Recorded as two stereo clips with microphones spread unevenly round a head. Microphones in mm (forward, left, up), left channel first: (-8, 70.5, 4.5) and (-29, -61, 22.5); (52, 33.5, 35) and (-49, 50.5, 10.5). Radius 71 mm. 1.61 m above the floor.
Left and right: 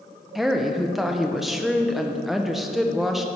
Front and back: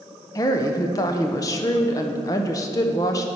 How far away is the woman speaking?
About 0.6 m.